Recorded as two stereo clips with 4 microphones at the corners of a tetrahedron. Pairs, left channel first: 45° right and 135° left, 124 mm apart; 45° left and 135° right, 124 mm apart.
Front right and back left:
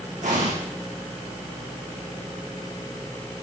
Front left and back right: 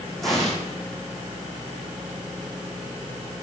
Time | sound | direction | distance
0.2 | an explosion | 135° left | 8.5 m